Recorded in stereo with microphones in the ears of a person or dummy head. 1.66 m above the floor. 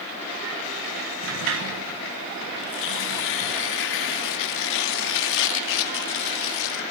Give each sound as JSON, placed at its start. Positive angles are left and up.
{"t": 1.2, "sound": "a sliding door", "side_deg": -75, "distance_m": 1.5}
{"t": 2.6, "sound": "tearing paper", "side_deg": 70, "distance_m": 2.0}